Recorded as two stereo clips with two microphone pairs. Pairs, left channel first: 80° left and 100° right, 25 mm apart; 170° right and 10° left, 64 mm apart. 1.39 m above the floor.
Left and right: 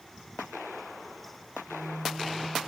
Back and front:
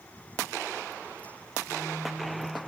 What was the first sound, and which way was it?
A phone buzzing, 165° right.